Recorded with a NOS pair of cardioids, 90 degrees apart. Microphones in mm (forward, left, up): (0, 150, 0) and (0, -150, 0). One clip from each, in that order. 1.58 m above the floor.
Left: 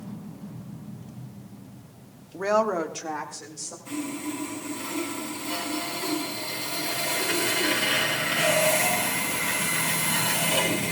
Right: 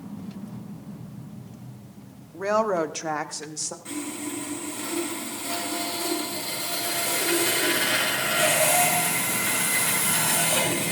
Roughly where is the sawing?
Ahead right.